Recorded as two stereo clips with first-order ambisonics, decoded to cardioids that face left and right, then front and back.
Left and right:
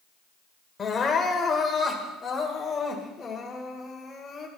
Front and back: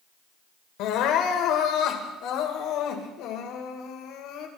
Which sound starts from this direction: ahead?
Crying, at 0.8 s.